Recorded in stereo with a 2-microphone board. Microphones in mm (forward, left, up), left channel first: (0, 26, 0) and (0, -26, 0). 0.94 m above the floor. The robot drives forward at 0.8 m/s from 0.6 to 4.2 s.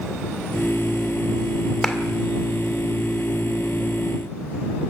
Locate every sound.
1.8 s a clap: 5° left (ahead or behind), 2.0 m; by 2.0 s 10° left (ahead or behind), 1.9 m